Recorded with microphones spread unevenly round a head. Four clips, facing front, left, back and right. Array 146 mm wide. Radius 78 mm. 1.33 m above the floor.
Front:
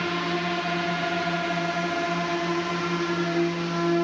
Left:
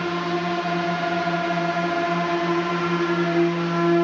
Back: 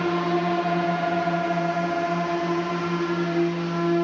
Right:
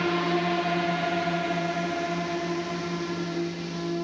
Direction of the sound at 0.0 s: 170° right.